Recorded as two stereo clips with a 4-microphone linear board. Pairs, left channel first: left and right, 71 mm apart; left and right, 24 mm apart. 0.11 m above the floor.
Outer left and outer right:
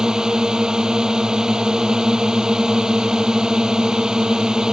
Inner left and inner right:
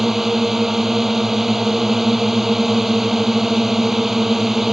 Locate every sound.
0.0 s a drone: 10° right (ahead or behind)